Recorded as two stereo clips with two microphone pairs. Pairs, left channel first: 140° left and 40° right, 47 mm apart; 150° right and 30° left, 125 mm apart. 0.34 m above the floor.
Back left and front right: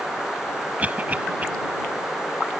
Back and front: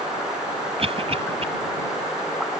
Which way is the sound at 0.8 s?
5° left.